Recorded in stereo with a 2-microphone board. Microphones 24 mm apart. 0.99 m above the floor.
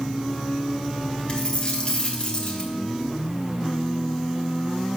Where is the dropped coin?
45° left (ahead or behind), 1.5 m.